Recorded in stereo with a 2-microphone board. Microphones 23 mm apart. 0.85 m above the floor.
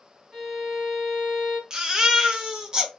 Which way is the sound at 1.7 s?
30° right (ahead or behind).